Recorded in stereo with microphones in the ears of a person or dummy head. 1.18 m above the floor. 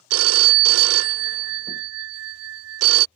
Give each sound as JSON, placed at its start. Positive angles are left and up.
{"t": 0.1, "sound": "a phone ringing", "side_deg": -90}